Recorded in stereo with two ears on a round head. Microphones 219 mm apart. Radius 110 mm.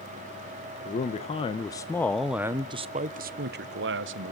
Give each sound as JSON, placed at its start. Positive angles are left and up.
{"t": 0.8, "sound": "a man speaking", "side_deg": 30, "distance_m": 1.2}